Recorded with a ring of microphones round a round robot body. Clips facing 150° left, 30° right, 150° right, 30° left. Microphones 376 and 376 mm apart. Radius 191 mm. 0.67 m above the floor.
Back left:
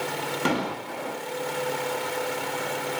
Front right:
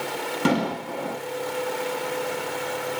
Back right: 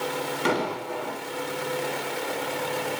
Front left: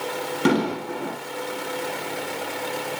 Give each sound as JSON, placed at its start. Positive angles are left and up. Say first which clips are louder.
{"t": 0.5, "sound": "an explosion", "louder": "front right 5 dB, front left 8 dB", "azimuth_deg": -20, "distance_m": 4.5}